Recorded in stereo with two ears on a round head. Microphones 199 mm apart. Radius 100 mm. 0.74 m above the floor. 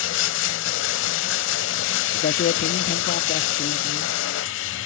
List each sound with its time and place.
0.0 s running water: 65° left (ahead or behind), 1.1 m
2.1 s a man speaking: 45° left (ahead or behind), 0.8 m